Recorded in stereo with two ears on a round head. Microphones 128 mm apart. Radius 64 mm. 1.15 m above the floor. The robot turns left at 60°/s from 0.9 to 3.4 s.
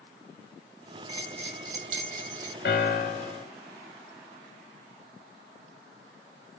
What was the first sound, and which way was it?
A bell, 35° right.